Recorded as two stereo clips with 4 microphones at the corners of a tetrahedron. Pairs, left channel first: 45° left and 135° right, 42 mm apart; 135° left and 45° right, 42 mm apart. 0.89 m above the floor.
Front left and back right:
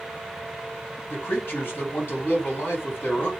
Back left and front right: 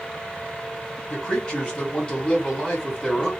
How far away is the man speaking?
About 1.7 m.